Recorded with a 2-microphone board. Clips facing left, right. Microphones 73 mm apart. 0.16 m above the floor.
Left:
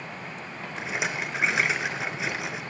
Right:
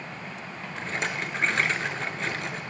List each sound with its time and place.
0.8 s a rattle: 5° left (ahead or behind), 0.6 m